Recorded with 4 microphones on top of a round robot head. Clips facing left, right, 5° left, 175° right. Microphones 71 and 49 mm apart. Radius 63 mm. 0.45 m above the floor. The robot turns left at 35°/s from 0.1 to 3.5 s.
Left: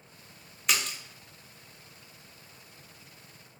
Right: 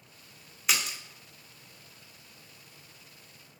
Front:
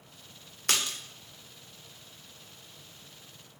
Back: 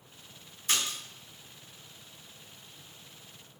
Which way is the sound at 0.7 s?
Straight ahead.